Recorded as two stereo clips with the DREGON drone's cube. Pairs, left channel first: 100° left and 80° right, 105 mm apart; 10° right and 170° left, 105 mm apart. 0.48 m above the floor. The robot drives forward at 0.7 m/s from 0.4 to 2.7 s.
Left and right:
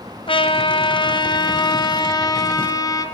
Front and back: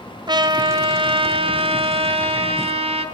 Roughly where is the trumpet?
Behind left.